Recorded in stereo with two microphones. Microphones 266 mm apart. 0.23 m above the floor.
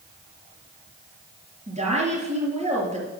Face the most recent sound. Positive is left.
turn(degrees=-25)  # may be behind; listen again after turning